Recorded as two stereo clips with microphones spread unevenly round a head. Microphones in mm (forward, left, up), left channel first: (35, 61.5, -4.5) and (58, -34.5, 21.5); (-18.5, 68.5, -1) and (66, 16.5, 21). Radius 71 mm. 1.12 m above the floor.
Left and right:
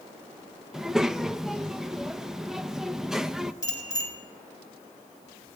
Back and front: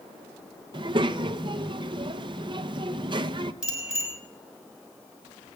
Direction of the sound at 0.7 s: 10° left.